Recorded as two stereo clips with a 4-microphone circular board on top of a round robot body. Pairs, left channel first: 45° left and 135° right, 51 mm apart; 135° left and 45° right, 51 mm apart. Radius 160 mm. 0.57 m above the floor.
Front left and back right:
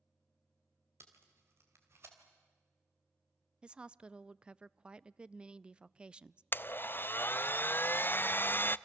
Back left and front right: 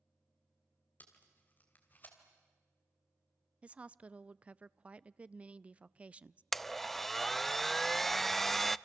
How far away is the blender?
About 0.5 m.